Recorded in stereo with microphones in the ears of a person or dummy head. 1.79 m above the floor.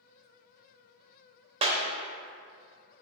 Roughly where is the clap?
Right.